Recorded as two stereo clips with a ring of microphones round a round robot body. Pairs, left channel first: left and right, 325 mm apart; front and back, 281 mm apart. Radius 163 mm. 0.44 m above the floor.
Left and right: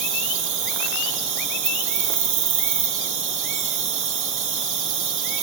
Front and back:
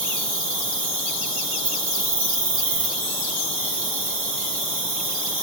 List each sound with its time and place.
0.0 s an insect: 130° right, 2 m